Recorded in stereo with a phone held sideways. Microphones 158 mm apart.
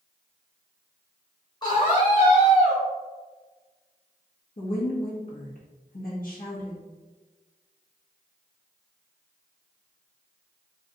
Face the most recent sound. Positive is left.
turn(degrees=65)  # may be behind; listen again after turning